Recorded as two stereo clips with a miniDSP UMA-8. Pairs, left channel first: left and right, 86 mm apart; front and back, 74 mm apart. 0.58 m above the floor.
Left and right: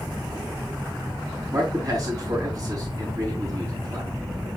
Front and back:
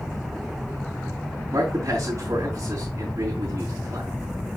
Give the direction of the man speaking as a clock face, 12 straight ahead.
5 o'clock.